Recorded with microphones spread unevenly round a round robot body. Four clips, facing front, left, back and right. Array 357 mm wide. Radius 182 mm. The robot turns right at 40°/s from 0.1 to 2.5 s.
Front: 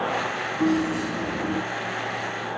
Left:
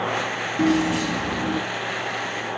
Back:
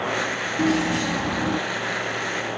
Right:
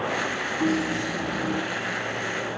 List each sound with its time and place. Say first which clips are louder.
0.6 s keys jangling: left 5 dB, back 1 dB; 125° left, 4 m; by 1.6 s 165° left, 4 m